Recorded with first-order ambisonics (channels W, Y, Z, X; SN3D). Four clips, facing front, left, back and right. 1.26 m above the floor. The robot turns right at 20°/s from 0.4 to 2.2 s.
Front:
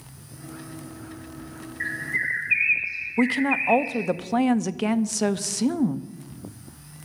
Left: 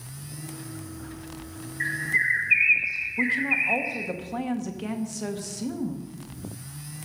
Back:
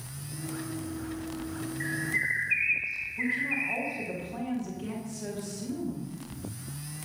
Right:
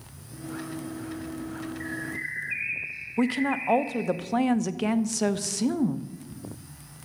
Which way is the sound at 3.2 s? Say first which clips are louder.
Left 1 dB, front 8 dB; 25° right.